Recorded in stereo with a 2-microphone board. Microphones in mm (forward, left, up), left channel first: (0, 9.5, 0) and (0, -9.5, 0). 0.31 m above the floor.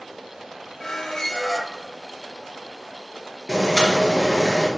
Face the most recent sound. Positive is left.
turn(degrees=-10)  # may be behind; listen again after turning